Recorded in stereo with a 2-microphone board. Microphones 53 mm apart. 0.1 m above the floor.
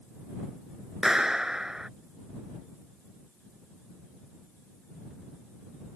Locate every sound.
1.0 s a clap: 10° right (ahead or behind)